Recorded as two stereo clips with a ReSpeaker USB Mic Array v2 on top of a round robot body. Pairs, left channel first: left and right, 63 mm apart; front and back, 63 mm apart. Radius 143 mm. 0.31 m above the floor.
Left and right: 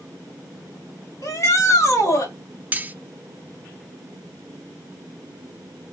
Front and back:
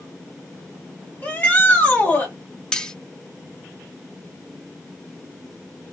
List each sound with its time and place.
1.2 s a shout: 60° left, 2 m
2.7 s cutlery clinking: 65° right, 0.6 m